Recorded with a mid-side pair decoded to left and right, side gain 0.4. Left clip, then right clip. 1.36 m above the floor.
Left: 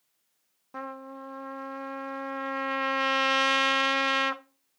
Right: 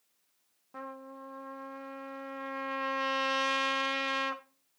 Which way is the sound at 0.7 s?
50° left.